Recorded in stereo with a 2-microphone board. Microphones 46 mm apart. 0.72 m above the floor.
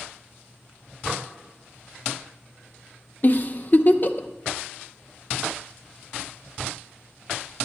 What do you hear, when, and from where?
1.1 s dishes clattering: 20° right (ahead or behind), 1.0 m
3.2 s a giggle: 40° left (ahead or behind), 0.6 m